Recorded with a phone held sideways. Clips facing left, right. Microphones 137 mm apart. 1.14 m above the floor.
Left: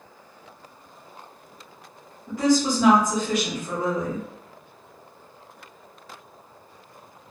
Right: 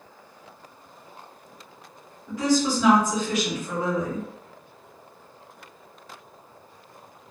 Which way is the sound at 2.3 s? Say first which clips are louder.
Left 2 dB; 45° left (ahead or behind).